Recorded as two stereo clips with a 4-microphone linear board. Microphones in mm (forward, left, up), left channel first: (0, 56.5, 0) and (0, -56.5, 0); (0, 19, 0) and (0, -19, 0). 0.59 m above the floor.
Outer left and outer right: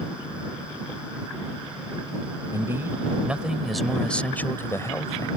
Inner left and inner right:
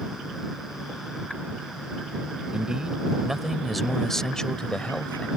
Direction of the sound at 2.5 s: 25° right (ahead or behind).